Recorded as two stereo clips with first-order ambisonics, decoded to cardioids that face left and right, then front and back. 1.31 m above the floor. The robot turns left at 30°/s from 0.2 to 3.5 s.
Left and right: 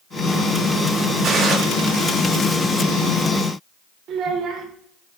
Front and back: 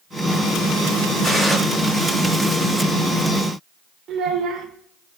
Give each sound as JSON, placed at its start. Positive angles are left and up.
{"t": 1.2, "sound": "a gunshot", "azimuth_deg": -105, "distance_m": 1.2}
{"t": 4.1, "sound": "a child speaking", "azimuth_deg": -130, "distance_m": 0.7}